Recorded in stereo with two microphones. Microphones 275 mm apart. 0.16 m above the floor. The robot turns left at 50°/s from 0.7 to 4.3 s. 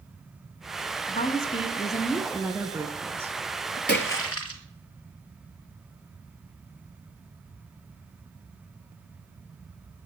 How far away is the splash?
About 1.6 m.